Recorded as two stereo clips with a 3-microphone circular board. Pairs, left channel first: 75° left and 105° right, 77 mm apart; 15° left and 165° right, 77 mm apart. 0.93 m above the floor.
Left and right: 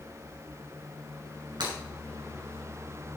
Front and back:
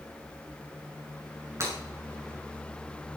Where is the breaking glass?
115° right, 8 m.